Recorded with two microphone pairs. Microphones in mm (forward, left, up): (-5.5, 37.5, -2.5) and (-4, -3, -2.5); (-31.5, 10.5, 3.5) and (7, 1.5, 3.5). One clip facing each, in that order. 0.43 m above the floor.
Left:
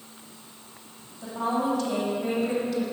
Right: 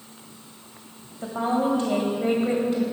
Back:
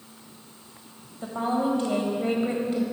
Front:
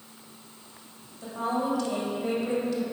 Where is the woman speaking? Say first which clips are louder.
Right 3 dB, back 3 dB; 140° right, 1.7 m.